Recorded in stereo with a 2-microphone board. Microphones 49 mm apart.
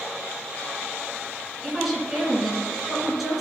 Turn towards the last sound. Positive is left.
turn(degrees=-5)  # may be behind; listen again after turning